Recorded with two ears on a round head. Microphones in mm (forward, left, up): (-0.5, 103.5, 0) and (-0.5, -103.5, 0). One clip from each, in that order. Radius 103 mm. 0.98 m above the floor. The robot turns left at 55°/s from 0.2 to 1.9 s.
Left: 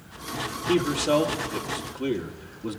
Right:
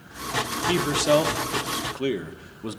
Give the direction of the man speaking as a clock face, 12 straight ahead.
2 o'clock.